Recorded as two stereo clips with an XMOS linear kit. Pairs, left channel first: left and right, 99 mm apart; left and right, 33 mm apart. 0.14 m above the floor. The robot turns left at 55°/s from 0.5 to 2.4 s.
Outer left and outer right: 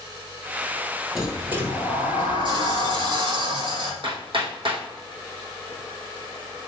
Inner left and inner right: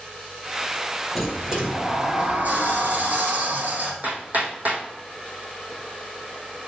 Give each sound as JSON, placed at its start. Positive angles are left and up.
{"t": 1.1, "sound": "a sliding door", "azimuth_deg": 0, "distance_m": 2.0}
{"t": 4.0, "sound": "hammering", "side_deg": -60, "distance_m": 3.0}